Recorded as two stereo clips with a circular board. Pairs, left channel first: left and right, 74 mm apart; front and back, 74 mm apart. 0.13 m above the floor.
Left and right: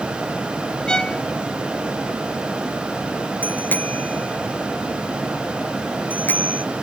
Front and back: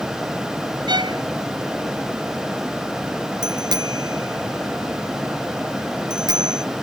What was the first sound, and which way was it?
A violin, 170° left.